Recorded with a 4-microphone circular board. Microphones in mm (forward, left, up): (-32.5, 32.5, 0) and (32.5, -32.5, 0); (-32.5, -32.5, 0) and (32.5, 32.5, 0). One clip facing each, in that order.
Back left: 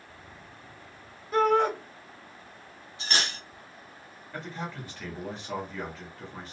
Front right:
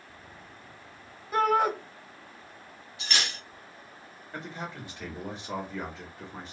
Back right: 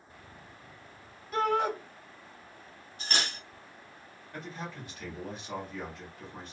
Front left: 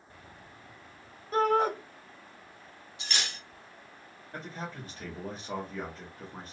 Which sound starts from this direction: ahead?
A man speaking, at 4.3 s.